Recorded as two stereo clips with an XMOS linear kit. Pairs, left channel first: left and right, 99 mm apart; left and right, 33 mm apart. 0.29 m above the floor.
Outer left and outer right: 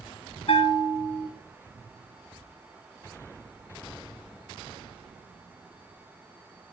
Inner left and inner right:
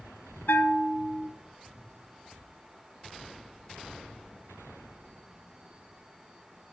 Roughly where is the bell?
Left.